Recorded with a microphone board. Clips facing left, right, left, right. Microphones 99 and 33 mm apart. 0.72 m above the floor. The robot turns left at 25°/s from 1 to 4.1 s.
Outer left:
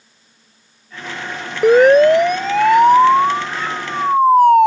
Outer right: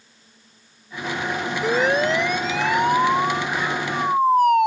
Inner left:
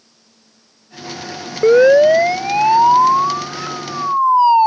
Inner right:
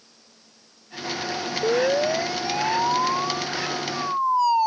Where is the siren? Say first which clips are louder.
Outer left 12 dB, inner left 13 dB; 65° left (ahead or behind); by 4.7 s 35° left (ahead or behind).